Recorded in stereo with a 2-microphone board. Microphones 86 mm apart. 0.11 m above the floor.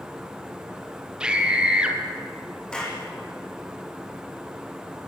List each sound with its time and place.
1.2 s a scream: 10° right (ahead or behind), 3 m
2.7 s a clap: 10° left (ahead or behind), 5.5 m